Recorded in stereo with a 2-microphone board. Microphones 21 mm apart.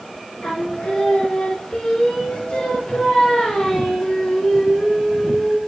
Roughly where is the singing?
Left.